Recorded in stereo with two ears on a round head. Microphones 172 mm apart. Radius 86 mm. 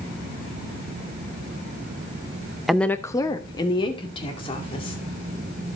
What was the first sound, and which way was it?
A woman speaking, centre (ahead or behind).